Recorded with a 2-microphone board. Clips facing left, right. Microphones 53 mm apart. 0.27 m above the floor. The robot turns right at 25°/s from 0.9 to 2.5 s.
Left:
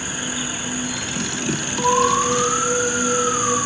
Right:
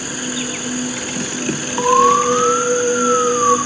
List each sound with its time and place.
0.0 s an insect: 90° right, 2 m; by 3.7 s 50° right, 2 m
1.8 s an alarm: 45° right (ahead or behind), 7 m; by 3.6 s 60° right (ahead or behind), 7 m